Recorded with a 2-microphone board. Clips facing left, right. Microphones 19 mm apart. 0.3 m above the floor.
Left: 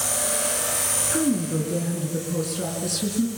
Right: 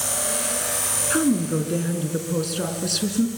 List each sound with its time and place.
1.1 s a woman speaking: 25° right (ahead or behind), 3 m